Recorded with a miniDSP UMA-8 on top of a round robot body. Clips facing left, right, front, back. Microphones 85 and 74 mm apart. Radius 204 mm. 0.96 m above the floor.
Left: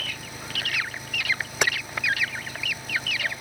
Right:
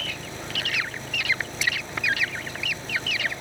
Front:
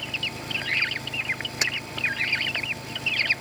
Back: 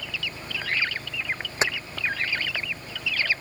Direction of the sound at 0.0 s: 5° left.